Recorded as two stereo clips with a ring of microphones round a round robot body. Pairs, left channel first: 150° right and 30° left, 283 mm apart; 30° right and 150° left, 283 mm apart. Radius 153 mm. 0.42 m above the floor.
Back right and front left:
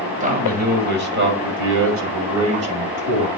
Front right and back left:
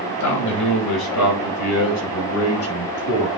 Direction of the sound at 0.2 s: 30° right.